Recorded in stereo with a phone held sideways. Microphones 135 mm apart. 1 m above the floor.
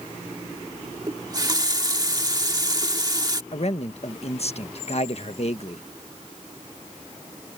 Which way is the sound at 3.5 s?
50° left (ahead or behind).